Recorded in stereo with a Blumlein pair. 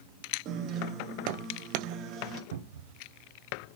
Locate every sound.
0.5 s a guitar: 30° right, 1.6 m
2.5 s a cupboard door: 55° right, 1.2 m